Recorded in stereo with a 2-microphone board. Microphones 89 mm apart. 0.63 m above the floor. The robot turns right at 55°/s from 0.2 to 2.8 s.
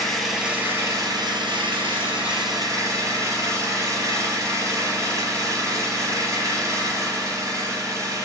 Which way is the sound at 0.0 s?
175° left.